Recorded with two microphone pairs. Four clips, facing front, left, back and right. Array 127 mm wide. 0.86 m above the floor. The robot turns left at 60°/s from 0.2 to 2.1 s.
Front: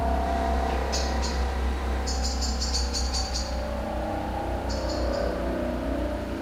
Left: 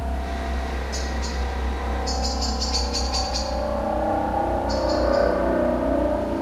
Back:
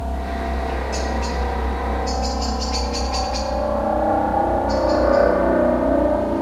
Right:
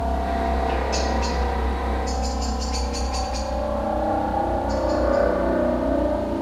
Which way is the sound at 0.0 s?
60° right.